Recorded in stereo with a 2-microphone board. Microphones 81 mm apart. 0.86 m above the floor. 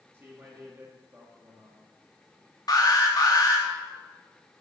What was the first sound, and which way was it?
A man speaking, 30° right (ahead or behind).